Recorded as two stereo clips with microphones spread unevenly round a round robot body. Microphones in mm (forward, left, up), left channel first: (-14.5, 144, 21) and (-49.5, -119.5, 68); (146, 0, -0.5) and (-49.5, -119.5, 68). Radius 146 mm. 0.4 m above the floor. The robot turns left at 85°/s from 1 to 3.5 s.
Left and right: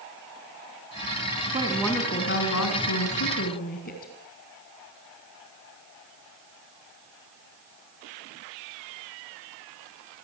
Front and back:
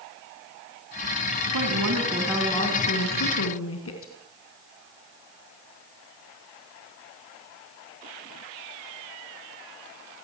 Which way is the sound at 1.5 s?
165° right.